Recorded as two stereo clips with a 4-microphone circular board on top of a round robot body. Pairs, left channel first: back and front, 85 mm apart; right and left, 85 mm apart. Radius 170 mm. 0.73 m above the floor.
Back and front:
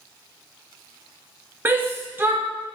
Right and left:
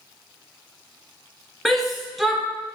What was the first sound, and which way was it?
A shout, straight ahead.